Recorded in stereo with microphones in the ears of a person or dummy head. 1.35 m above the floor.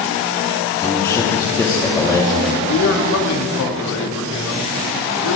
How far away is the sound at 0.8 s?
About 2 m.